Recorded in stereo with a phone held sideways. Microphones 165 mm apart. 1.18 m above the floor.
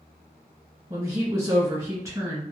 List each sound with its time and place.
0.9 s a woman speaking: 20° right (ahead or behind), 1.3 m